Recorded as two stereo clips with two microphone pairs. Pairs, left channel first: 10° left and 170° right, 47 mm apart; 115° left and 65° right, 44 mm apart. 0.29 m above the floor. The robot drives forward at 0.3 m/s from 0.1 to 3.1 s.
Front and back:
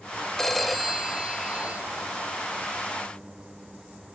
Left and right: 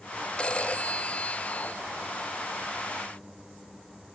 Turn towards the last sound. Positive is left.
turn(degrees=165)